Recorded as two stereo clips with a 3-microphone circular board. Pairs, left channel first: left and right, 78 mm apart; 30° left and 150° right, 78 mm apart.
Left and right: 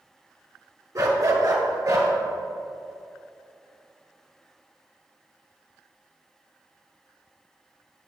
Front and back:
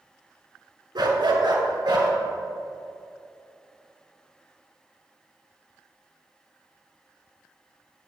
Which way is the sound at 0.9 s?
130° right.